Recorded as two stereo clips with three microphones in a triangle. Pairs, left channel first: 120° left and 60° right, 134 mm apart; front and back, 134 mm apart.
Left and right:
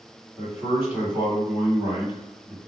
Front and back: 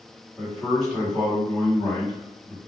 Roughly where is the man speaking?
Right.